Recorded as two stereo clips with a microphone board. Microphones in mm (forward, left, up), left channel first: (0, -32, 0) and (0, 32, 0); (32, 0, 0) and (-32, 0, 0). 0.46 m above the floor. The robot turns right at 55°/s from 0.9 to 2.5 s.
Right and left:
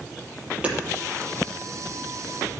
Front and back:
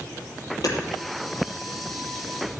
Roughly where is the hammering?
Ahead.